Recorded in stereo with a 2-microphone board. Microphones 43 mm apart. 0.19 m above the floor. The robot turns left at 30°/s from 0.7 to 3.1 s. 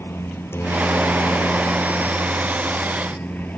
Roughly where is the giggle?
No giggle in this recording.